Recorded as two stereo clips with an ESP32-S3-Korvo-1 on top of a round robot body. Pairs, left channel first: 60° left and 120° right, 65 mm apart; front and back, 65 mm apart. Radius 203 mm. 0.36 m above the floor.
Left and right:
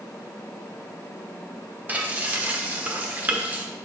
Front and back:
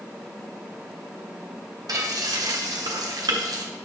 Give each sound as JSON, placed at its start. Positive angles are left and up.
{"t": 1.9, "sound": "frying", "azimuth_deg": 180, "distance_m": 1.3}